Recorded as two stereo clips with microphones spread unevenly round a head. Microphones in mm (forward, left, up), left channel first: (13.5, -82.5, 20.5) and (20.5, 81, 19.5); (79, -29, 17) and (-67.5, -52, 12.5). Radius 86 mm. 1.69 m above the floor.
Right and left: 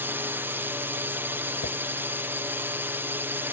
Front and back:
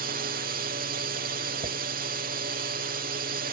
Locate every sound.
0.0 s a drone: 165° left
1.6 s a dropped coin: 130° right